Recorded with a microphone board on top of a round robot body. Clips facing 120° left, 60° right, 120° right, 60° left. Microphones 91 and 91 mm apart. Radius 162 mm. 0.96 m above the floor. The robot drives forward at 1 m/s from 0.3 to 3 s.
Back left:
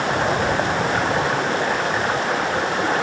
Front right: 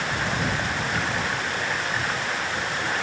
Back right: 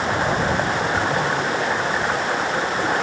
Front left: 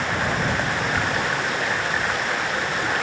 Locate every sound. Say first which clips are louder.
0.0 s running water: back left 7 dB, back right 3 dB; 175° left